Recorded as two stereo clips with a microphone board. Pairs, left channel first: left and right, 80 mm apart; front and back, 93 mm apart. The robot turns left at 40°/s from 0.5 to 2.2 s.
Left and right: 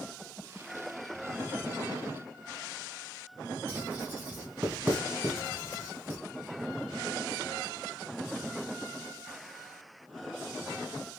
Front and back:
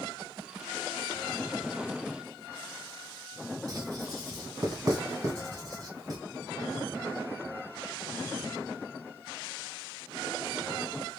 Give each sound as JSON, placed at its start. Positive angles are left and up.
{"t": 3.7, "sound": "writing", "azimuth_deg": -150, "distance_m": 1.7}